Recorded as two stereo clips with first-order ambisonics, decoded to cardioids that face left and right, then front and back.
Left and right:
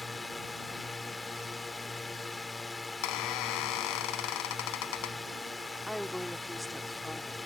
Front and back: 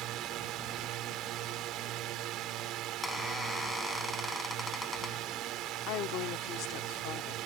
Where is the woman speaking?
Straight ahead.